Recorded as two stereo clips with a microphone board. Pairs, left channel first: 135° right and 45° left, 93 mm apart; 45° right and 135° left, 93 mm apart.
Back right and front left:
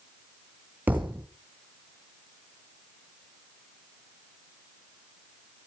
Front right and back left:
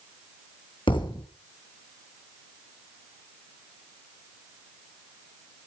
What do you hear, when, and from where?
0.9 s a thud: 25° right, 2.5 m